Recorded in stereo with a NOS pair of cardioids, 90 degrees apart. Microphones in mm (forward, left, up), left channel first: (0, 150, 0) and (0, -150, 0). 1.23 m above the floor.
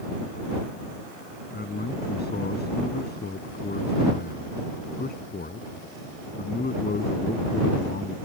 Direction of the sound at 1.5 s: 30° left.